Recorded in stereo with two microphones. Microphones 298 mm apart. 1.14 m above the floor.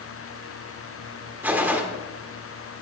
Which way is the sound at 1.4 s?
5° right (ahead or behind).